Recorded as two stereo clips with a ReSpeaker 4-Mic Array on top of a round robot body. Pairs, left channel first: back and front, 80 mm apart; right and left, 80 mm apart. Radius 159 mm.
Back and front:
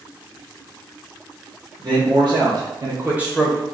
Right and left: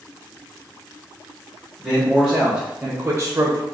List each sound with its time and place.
1.8 s a man speaking: 5° left, 1.8 m; by 3.6 s 120° left, 0.9 m